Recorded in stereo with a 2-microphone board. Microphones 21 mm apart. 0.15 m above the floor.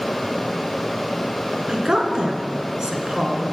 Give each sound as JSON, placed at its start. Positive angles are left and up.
{"t": 1.7, "sound": "a woman speaking", "side_deg": -35, "distance_m": 1.2}